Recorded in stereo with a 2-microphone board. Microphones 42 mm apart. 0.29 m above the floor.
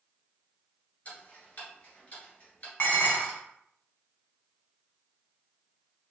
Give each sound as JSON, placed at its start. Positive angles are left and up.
{"t": 1.1, "sound": "ticking", "side_deg": 30, "distance_m": 1.9}
{"t": 2.8, "sound": "dishes clattering", "side_deg": 40, "distance_m": 1.6}